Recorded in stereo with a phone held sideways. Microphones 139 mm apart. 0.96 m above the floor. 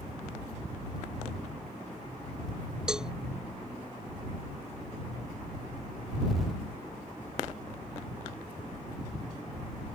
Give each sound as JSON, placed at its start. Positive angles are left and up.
{"t": 2.9, "sound": "a cowbell", "side_deg": -5}